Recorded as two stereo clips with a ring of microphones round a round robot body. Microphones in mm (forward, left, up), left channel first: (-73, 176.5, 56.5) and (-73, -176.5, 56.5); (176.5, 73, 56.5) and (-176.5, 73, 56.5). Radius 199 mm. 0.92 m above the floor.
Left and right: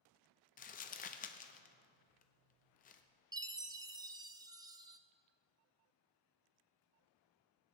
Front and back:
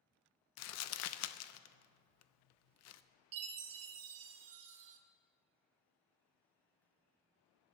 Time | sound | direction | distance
0.6 | crumpling | 30° left | 0.6 m
3.3 | a chime | 170° right | 0.9 m